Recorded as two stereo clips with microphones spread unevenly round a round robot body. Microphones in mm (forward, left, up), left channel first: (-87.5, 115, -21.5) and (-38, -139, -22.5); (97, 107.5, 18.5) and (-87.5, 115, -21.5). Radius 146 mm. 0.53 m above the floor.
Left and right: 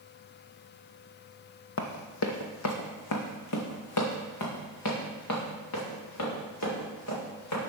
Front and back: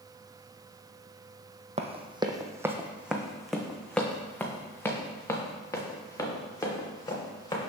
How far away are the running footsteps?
About 0.9 m.